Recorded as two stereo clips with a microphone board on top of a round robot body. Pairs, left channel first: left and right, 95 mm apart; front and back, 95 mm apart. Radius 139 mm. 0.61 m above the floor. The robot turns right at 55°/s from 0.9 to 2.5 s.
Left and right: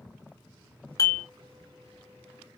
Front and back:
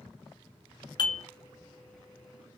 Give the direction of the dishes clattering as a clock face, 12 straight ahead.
11 o'clock.